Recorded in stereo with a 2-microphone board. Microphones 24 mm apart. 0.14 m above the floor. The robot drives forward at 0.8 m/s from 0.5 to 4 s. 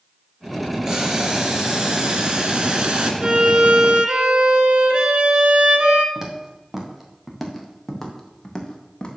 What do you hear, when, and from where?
0.8 s boiling: 25° right (ahead or behind), 2.5 m; by 3.1 s 40° right (ahead or behind), 1.8 m
3.2 s a violin: 40° right (ahead or behind), 1.6 m; by 6.0 s 45° right (ahead or behind), 1.5 m
6.2 s footsteps: 20° right (ahead or behind), 4 m; by 9.1 s 30° left (ahead or behind), 3.5 m